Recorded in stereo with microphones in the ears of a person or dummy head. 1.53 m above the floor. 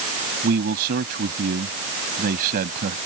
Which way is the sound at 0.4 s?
60° right (ahead or behind).